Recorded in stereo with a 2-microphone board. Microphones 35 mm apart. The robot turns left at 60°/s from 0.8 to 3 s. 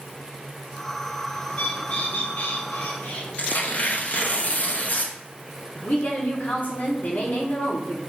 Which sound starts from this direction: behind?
A bird, at 1.5 s.